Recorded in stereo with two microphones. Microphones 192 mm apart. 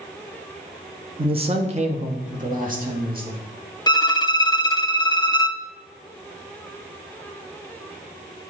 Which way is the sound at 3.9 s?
20° left (ahead or behind).